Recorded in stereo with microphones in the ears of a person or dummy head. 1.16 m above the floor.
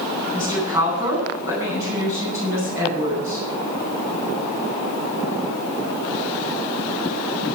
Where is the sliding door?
No sliding door in this recording.